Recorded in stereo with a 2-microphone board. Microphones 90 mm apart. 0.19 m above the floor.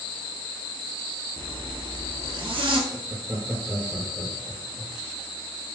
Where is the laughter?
15° right (ahead or behind), 1.5 m.